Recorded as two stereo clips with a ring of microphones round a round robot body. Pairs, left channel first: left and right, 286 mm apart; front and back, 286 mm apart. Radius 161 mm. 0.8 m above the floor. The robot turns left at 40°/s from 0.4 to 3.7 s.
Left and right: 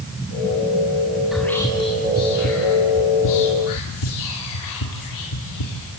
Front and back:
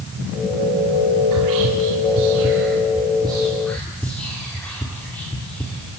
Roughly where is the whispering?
Behind.